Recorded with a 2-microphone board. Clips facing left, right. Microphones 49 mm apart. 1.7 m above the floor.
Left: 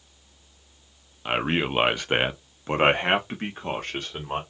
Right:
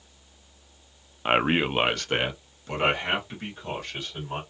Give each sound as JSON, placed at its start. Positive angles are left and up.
{"t": 1.2, "sound": "a man speaking", "side_deg": -25, "distance_m": 0.5}